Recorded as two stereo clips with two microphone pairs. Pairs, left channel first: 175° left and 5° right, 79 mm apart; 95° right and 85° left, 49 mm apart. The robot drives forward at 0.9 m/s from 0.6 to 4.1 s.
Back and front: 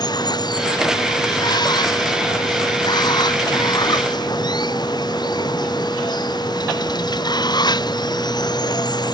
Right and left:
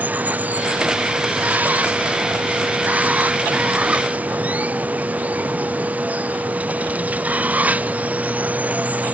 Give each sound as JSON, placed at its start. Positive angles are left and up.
{"t": 0.0, "sound": "running water", "azimuth_deg": 145}